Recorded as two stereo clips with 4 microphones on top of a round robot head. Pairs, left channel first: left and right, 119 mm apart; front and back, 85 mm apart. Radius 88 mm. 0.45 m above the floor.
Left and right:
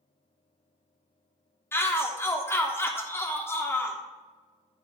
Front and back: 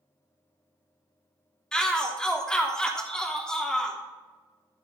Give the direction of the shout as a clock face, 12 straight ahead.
10 o'clock.